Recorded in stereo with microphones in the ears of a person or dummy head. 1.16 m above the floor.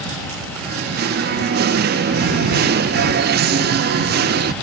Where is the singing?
50° right (ahead or behind).